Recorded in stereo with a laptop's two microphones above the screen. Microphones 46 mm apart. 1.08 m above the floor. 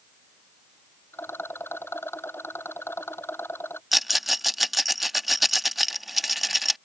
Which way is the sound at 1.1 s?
65° left (ahead or behind).